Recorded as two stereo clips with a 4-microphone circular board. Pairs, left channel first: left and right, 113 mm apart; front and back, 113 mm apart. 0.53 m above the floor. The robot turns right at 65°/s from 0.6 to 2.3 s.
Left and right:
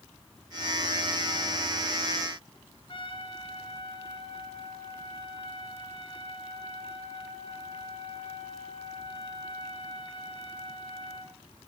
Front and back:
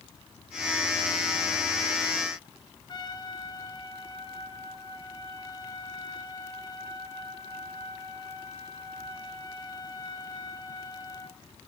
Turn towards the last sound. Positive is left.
turn(degrees=50)